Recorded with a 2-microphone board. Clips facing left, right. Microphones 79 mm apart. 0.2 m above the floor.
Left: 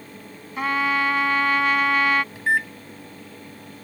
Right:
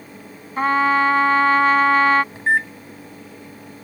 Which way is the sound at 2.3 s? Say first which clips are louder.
Right 3 dB; 30° right (ahead or behind).